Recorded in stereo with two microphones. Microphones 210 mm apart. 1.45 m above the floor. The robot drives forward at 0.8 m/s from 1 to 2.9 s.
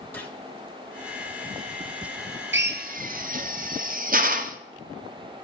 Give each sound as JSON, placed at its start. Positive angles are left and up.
{"t": 0.1, "sound": "a gunshot", "side_deg": 10, "distance_m": 1.2}
{"t": 2.5, "sound": "a drill", "side_deg": -60, "distance_m": 0.6}